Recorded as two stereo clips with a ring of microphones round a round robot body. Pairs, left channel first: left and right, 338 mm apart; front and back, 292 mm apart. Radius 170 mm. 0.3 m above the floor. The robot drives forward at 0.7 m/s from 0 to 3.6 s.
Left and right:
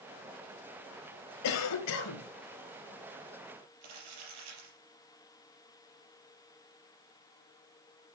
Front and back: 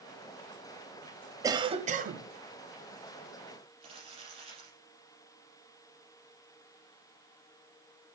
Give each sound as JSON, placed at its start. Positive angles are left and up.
{"t": 1.4, "sound": "a cough", "azimuth_deg": 105, "distance_m": 1.4}
{"t": 3.8, "sound": "crumpling", "azimuth_deg": -105, "distance_m": 5.5}